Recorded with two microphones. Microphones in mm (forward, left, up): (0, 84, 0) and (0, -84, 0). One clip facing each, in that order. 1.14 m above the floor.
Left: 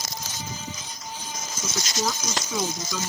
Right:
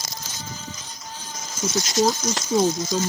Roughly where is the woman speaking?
Right.